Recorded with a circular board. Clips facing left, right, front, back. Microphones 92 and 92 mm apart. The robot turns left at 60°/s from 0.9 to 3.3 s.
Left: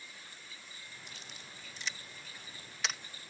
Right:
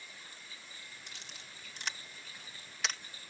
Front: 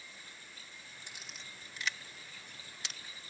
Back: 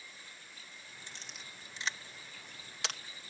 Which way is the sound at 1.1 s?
75° right.